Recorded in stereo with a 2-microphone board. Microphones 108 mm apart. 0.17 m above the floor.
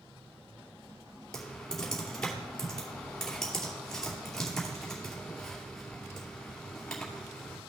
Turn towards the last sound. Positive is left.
turn(degrees=5)  # may be behind; listen again after turning